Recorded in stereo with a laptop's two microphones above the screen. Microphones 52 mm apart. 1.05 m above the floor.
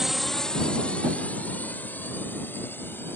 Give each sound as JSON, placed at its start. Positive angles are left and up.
{"t": 0.0, "sound": "a drone", "side_deg": -10}